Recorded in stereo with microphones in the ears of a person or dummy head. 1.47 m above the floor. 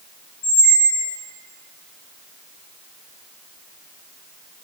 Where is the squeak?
45° left (ahead or behind), 0.6 m.